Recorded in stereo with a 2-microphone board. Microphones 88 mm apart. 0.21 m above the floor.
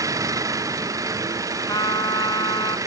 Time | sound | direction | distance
0.0 | an engine running | 40° right (ahead or behind) | ?
1.7 | a trumpet | 50° left (ahead or behind) | ?